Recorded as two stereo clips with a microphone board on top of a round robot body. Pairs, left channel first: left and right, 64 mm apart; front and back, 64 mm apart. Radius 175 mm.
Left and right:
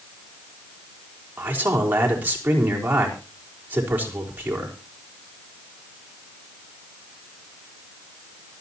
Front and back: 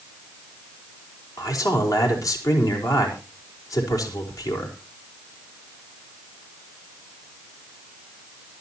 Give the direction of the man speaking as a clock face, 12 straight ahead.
1 o'clock.